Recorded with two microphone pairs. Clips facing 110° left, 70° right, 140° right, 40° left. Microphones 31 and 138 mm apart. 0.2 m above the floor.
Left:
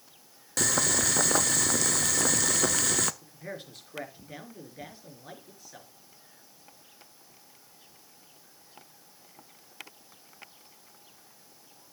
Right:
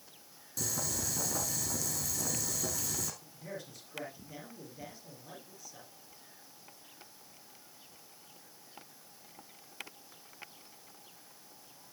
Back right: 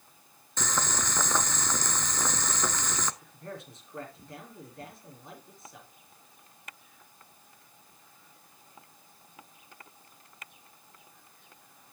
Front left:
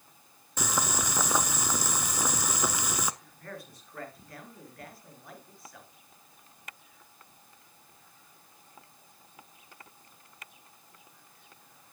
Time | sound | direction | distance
0.6 | boiling | 115° left | 0.5 m
3.2 | a man speaking | 155° left | 4 m